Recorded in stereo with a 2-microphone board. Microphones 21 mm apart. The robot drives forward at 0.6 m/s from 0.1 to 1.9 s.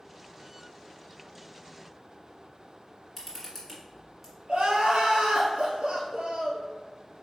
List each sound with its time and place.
3.2 s a camera shutter: 5° right (ahead or behind), 1.5 m
4.5 s crying: 70° right (ahead or behind), 1.5 m